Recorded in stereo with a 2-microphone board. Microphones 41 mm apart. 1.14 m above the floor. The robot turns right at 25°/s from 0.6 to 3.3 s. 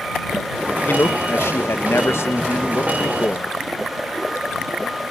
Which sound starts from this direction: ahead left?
A man speaking, at 0.9 s.